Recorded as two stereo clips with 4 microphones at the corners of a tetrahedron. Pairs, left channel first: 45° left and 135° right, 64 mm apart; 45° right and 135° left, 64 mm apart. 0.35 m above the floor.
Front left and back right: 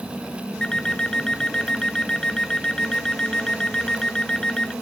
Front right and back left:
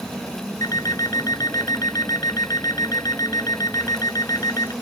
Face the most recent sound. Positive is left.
turn(degrees=-35)